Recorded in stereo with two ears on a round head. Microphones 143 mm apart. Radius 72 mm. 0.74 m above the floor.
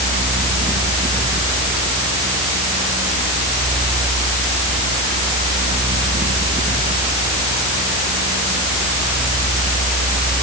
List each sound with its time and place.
Only background noise.